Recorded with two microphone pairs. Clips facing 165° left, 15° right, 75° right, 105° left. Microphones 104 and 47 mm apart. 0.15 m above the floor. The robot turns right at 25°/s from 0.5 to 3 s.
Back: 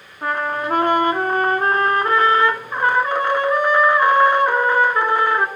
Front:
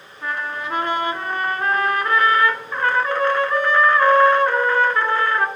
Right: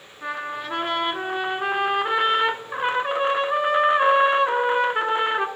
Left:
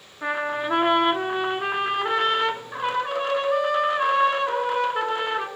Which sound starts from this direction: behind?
A trumpet, at 0.2 s.